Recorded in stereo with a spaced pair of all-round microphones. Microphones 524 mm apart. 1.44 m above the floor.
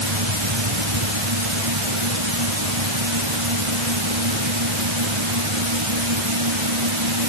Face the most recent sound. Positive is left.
turn(degrees=-65)  # may be behind; listen again after turning